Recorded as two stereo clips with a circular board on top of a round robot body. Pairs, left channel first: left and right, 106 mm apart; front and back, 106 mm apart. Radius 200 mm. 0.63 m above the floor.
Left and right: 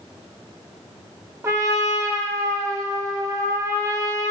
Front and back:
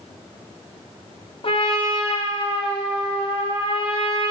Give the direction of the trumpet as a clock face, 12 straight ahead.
1 o'clock.